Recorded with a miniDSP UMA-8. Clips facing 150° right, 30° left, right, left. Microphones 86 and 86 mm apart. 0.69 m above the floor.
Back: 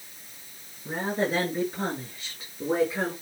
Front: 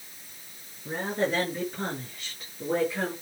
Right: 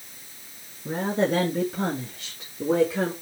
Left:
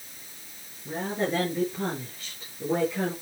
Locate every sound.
0.8 s a woman speaking: 65° right, 8 m; by 3.1 s 75° right, 8 m